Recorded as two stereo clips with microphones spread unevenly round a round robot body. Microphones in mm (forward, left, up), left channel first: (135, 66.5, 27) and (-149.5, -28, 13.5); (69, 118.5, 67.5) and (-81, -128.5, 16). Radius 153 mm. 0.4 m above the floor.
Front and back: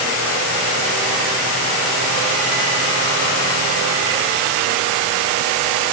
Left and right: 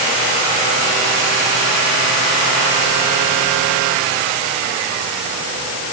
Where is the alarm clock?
No alarm clock in this recording.